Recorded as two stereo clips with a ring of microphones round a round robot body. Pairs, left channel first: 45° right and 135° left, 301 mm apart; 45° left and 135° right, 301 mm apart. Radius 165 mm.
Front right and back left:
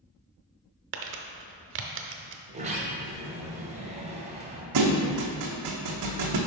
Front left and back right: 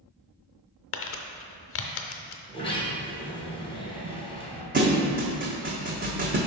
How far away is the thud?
About 1.1 m.